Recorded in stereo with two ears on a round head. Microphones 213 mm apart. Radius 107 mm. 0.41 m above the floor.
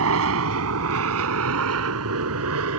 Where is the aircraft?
65° right (ahead or behind).